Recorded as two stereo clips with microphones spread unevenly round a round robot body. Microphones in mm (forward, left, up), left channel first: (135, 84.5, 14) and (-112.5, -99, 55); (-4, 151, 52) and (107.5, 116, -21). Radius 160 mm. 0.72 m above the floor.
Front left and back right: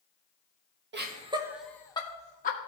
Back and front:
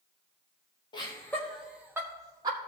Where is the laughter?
110° right, 1.2 m; by 2.6 s 20° right, 2.0 m.